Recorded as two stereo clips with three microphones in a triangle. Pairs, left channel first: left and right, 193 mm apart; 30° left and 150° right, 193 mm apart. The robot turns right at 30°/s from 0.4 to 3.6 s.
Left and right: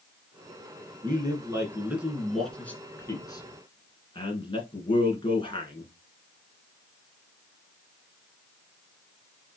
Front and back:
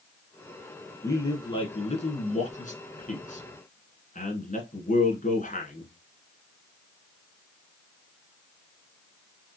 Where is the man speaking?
40° right, 1.9 m; by 5.9 s 40° left, 1.9 m.